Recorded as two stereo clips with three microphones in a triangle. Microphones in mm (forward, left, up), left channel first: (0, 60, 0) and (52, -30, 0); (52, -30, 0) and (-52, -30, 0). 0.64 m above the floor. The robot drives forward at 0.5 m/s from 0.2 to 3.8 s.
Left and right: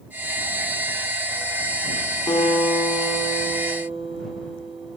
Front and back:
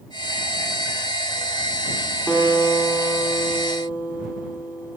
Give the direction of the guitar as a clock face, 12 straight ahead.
9 o'clock.